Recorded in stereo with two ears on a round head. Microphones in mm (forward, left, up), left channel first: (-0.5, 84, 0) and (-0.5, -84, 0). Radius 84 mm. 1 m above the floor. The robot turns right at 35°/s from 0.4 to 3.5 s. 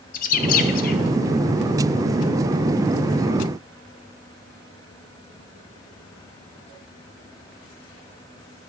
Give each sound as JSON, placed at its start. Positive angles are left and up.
{"t": 0.1, "sound": "a bird", "side_deg": 45, "distance_m": 0.5}